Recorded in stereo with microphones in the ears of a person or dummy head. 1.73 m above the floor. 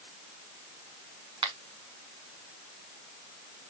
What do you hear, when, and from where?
1.4 s a finger snap: 20° right (ahead or behind), 1.0 m